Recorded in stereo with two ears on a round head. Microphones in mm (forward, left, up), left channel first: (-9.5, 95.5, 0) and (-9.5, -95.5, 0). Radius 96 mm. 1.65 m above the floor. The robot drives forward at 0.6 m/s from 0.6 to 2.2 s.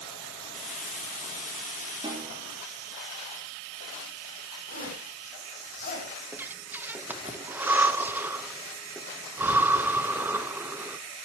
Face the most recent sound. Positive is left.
turn(degrees=-10)  # may be behind; listen again after turning